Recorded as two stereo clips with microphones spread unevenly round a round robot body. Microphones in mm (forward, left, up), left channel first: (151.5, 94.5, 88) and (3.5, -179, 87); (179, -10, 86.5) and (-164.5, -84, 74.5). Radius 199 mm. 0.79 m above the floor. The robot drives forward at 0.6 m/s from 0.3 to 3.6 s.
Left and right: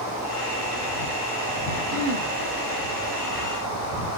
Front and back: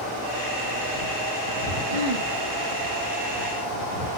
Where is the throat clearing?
175° right, 2.5 m.